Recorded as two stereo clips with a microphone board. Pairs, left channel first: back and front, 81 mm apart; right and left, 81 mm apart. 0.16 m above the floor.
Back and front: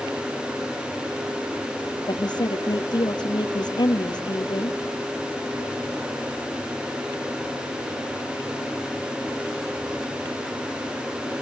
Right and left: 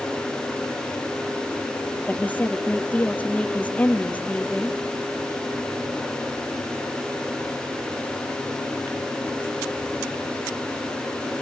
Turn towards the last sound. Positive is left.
turn(degrees=-160)